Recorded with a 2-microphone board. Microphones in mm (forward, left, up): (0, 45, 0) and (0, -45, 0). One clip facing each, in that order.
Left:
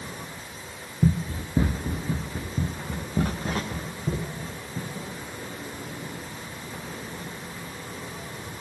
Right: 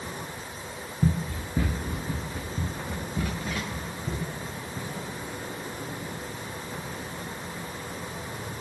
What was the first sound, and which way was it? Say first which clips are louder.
Running footsteps: left 3 dB; 15° left (ahead or behind).